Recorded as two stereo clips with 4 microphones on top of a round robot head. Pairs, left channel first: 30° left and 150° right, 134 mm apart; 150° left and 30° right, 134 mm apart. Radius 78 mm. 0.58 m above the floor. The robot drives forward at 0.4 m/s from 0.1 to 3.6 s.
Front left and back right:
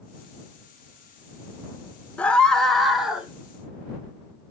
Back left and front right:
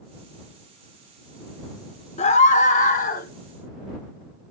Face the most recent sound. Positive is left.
turn(degrees=130)